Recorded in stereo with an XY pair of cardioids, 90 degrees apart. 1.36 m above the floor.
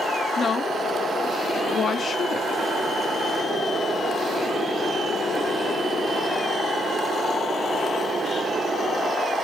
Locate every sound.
0.4 s a woman speaking: 55° left, 0.7 m